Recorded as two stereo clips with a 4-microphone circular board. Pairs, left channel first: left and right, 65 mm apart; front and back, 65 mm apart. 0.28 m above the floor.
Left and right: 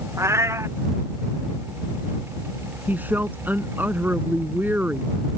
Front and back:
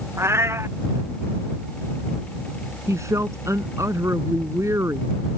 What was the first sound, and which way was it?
A cat meowing, 135° right.